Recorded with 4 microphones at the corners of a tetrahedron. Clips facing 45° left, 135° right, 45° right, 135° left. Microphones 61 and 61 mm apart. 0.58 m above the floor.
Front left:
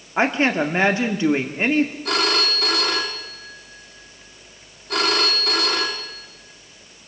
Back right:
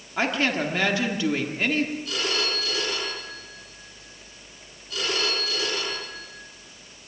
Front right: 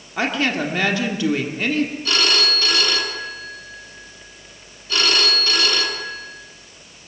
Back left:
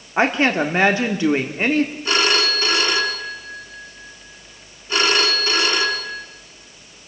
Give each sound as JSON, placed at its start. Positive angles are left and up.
{"t": 0.2, "sound": "a woman speaking", "azimuth_deg": 90, "distance_m": 1.5}
{"t": 2.0, "sound": "a phone ringing", "azimuth_deg": 65, "distance_m": 3.0}